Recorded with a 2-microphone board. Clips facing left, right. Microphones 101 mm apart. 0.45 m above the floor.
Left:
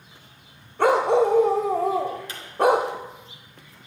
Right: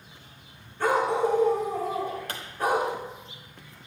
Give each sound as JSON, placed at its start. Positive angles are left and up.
{"t": 0.8, "sound": "a dog barking", "side_deg": 70, "distance_m": 0.5}
{"t": 2.3, "sound": "a pop", "side_deg": -55, "distance_m": 1.2}